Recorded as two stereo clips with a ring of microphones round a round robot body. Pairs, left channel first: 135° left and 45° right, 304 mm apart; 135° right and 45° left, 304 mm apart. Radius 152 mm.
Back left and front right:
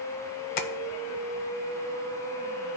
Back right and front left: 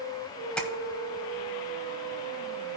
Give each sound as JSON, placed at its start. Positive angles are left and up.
{"t": 0.6, "sound": "tapping", "azimuth_deg": 140, "distance_m": 0.9}